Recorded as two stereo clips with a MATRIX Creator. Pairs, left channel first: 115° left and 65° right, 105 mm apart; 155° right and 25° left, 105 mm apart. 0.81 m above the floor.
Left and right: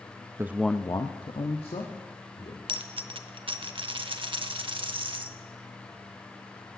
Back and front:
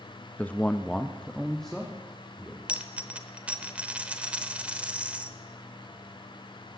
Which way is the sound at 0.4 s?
95° right.